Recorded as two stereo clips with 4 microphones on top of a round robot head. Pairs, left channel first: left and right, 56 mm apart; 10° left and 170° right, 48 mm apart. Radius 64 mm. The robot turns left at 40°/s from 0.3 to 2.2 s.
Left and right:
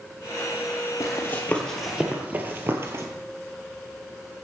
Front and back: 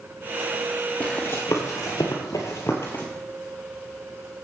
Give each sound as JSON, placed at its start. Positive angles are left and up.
{"t": 1.0, "sound": "running footsteps", "azimuth_deg": 60, "distance_m": 1.8}